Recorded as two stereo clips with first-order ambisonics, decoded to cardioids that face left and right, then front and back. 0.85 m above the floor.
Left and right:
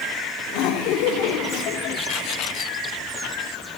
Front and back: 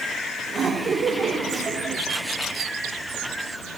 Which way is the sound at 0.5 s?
110° left.